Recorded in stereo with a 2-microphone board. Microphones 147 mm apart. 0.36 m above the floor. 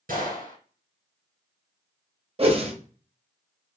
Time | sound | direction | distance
0.1 | a gunshot | 75° right (ahead or behind) | 2.5 m
2.4 | a whoosh | 40° right (ahead or behind) | 0.8 m